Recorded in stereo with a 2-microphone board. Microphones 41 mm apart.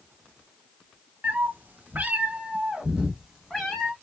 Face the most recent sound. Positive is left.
turn(degrees=0)  # may be behind; listen again after turning